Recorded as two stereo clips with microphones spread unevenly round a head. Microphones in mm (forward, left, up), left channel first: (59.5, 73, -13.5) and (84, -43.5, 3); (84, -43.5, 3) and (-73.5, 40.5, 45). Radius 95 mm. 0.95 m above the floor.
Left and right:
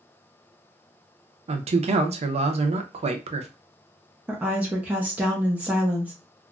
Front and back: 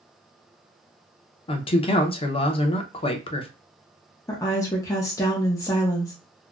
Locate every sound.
1.5 s a man speaking: 60° right, 0.6 m
4.3 s a woman speaking: 5° left, 0.7 m